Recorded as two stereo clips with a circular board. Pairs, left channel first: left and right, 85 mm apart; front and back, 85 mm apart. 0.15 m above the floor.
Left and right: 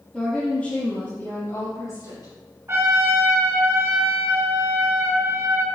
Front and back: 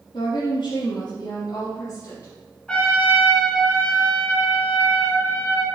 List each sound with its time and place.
0.1 s a woman speaking: straight ahead, 3.5 m; by 2.3 s 60° left, 3.5 m
2.7 s a trumpet: 70° right, 1.9 m